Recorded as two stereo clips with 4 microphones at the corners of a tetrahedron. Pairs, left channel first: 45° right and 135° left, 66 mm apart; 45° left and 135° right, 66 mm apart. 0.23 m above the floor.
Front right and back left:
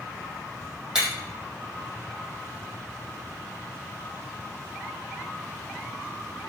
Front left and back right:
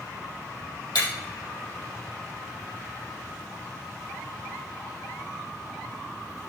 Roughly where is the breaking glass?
Ahead left.